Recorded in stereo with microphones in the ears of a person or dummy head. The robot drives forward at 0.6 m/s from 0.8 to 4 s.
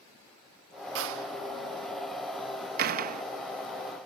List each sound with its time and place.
0.9 s a door slam: 75° right (ahead or behind); by 3.2 s 50° right (ahead or behind)